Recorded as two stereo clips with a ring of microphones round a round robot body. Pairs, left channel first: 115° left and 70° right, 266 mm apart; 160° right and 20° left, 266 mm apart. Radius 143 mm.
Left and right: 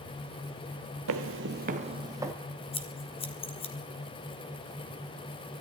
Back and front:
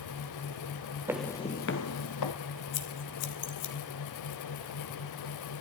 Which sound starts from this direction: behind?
Scissors, at 2.7 s.